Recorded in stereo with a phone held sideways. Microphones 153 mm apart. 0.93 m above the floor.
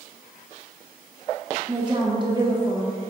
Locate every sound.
1.7 s a woman speaking: 30° right (ahead or behind), 1.4 m